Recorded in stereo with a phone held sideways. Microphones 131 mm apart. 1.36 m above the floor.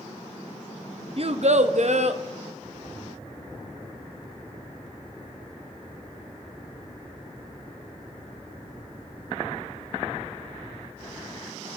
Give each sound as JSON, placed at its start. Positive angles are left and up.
{"t": 1.2, "sound": "a child speaking", "side_deg": -45, "distance_m": 0.9}